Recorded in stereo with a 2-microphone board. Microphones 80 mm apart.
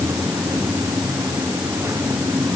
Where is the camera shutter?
I don't hear a camera shutter.